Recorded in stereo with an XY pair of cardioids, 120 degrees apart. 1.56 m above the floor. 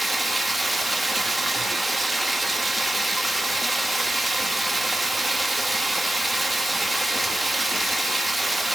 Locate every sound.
0.0 s running water: 10° right, 2.5 m